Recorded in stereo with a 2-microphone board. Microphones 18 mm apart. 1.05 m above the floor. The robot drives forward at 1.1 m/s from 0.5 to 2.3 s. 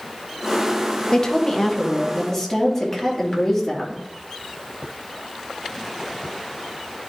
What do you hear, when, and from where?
1.1 s a woman speaking: 30° left (ahead or behind), 0.9 m; by 4.0 s 15° left (ahead or behind), 2 m